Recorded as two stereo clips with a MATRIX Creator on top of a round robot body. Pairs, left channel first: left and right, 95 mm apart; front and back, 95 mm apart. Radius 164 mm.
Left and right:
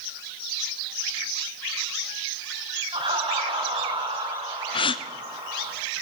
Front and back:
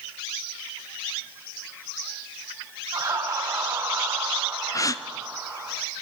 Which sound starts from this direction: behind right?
Laughter, at 2.9 s.